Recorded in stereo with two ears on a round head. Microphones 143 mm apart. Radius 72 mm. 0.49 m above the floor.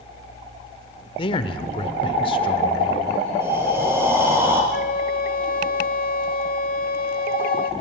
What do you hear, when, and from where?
1.2 s a man speaking: 35° left (ahead or behind), 1.6 m
3.4 s breathing: 15° right (ahead or behind), 6 m
4.7 s a flute: 60° left (ahead or behind), 1.8 m